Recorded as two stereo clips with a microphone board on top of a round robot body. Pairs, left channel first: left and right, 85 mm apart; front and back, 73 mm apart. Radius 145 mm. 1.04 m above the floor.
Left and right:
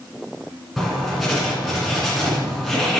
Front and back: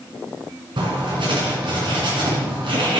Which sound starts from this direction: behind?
Writing, at 0.8 s.